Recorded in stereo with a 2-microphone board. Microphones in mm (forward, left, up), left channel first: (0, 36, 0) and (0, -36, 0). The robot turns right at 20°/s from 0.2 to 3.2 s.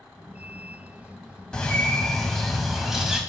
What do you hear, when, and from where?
1.5 s a bird: 160° left, 1.4 m; by 3.2 s 165° right, 1.4 m